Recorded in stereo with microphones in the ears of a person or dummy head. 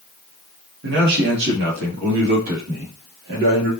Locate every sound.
0.8 s a man speaking: 70° right (ahead or behind), 2.0 m; by 3.7 s 60° right (ahead or behind), 3.5 m